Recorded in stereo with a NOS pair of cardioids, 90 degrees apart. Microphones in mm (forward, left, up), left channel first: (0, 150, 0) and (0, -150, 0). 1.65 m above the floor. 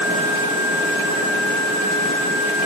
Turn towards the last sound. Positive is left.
No sound to turn to.